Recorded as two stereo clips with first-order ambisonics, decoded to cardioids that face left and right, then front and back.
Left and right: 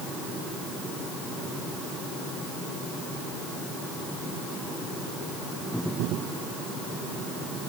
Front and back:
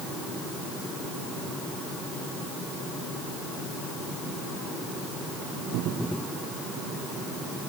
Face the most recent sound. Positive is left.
No sound to turn to.